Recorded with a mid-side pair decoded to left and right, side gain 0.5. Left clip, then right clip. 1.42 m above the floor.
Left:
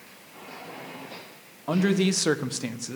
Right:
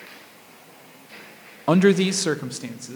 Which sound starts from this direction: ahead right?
A man speaking, at 1.7 s.